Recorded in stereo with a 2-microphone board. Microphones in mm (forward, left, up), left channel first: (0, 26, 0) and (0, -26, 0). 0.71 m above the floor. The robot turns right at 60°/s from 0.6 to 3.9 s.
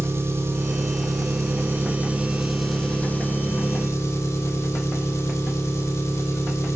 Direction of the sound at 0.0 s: 120° right.